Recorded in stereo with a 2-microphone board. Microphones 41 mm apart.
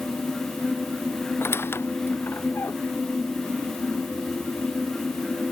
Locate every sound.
1.4 s a squeak: 85° left